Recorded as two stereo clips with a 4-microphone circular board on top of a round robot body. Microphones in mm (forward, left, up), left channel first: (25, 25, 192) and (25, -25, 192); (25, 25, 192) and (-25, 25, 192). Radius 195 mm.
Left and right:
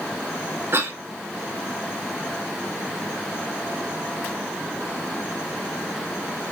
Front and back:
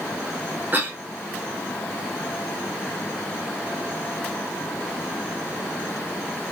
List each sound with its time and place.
0.7 s a cough: 125° right, 2.5 m